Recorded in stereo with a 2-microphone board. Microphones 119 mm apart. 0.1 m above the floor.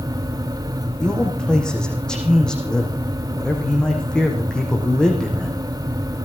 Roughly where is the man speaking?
Centre.